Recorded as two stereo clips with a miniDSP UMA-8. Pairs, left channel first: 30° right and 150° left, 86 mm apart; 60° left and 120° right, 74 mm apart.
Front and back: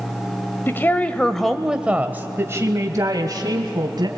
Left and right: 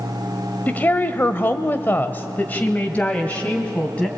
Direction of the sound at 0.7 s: 10° left.